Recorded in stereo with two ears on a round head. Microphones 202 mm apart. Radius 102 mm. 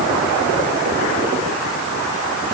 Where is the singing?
No singing in this recording.